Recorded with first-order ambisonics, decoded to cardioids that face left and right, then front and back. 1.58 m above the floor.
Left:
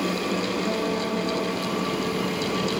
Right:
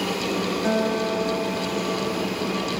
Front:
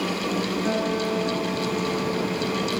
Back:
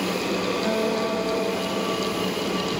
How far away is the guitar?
About 4 m.